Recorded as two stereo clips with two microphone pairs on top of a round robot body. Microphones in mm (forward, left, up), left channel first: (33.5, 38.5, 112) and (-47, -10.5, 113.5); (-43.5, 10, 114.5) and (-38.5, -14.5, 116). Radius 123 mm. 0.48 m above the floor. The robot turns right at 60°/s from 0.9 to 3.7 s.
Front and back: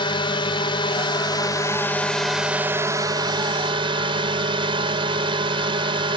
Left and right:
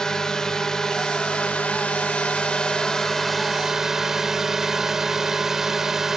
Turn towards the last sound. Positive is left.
turn(degrees=-155)